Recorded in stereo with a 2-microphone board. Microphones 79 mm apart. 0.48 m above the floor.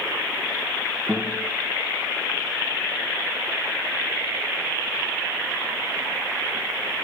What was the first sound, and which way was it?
A guitar, centre (ahead or behind).